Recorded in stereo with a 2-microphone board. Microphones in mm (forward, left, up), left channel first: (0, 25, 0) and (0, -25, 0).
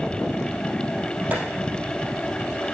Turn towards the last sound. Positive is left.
turn(degrees=-40)  # may be behind; listen again after turning